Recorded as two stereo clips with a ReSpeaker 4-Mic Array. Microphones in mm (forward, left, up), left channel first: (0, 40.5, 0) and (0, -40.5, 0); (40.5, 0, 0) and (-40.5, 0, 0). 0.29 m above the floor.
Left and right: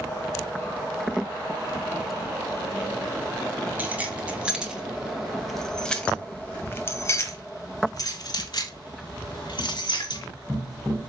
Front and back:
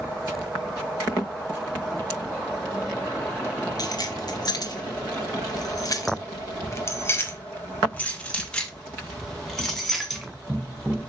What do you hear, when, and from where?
3.8 s keys jangling: 25° right, 1.9 m; by 10.2 s 90° left, 2.5 m